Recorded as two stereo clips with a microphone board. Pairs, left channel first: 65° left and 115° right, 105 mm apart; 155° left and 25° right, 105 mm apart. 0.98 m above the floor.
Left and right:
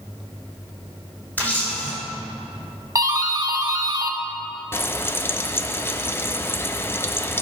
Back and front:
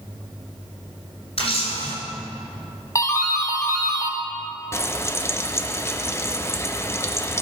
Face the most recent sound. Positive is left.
turn(degrees=115)